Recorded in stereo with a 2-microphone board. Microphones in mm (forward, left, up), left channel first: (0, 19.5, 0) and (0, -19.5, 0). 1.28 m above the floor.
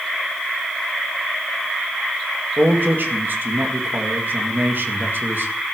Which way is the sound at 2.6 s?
60° right (ahead or behind).